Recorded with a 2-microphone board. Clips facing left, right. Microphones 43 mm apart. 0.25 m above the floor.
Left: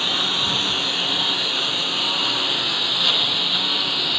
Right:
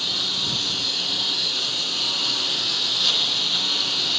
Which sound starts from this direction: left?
A lawn mower, at 0.0 s.